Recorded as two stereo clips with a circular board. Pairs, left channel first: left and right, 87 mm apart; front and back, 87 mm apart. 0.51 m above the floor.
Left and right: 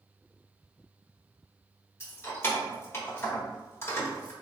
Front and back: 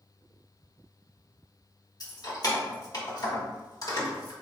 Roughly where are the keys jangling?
Ahead left.